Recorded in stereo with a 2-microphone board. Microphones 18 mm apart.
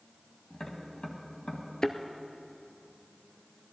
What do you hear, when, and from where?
0.5 s tapping: 40° left (ahead or behind), 2 m
1.8 s a thud: 50° left (ahead or behind), 0.7 m